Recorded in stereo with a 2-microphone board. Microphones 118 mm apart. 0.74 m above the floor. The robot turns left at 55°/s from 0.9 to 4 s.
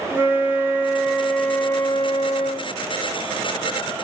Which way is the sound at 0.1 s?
160° right.